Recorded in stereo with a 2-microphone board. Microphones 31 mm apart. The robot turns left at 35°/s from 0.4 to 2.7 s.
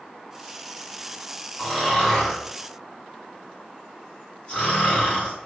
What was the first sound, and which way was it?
Snoring, centre (ahead or behind).